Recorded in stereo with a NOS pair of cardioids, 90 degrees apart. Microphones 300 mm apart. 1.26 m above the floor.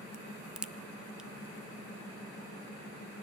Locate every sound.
0.1 s a crack: 5° right, 0.6 m